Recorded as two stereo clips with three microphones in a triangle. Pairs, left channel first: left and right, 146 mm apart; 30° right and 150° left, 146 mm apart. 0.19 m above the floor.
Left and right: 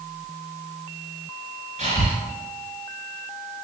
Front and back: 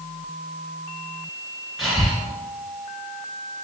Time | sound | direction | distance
1.8 | breathing | 120° right | 1.1 m